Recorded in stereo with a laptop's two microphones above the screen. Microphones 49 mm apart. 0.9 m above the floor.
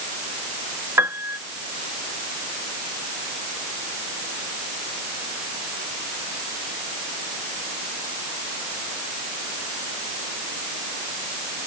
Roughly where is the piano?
Right.